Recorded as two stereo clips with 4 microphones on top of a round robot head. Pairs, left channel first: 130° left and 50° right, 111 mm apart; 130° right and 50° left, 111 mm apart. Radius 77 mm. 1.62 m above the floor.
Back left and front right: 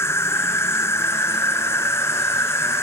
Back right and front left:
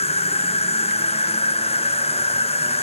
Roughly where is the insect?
Behind.